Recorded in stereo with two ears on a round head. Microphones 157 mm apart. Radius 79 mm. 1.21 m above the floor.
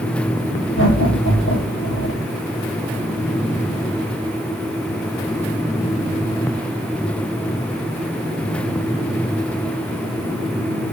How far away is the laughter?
About 4.5 m.